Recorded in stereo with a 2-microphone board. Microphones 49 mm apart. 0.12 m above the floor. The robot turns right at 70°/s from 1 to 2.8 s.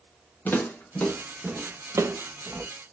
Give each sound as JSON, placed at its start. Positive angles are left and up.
{"t": 0.5, "sound": "footsteps", "side_deg": 40, "distance_m": 1.8}